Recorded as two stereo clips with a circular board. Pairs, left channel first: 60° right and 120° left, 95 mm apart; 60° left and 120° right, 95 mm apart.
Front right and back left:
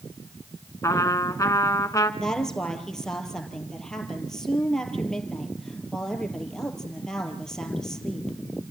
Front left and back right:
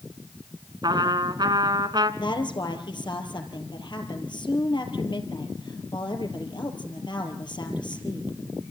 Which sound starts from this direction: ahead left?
A woman speaking, at 2.2 s.